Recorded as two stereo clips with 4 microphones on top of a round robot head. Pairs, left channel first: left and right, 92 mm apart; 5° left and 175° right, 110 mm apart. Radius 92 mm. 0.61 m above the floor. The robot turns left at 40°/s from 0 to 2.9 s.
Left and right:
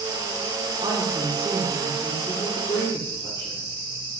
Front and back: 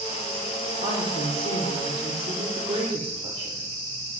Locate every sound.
0.8 s a woman speaking: 135° right, 2.5 m; by 3.6 s 140° left, 2.5 m